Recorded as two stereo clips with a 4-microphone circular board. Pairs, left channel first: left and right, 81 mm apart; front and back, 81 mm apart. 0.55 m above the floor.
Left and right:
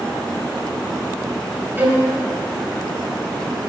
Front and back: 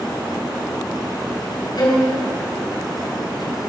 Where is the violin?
25° right, 3 m.